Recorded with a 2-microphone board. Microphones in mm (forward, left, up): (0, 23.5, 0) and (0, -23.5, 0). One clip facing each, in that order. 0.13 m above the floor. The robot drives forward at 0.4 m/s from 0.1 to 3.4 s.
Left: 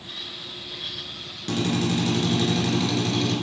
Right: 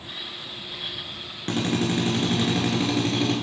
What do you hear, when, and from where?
1.5 s a drill: 30° right (ahead or behind), 1.7 m; by 3.3 s 25° right (ahead or behind), 2 m